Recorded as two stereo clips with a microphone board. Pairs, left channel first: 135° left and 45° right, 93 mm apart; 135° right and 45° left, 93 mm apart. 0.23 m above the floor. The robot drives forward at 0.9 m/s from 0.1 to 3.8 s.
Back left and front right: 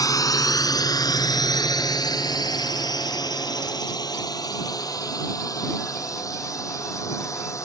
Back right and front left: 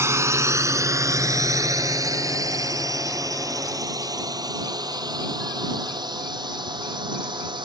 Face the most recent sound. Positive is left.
turn(degrees=80)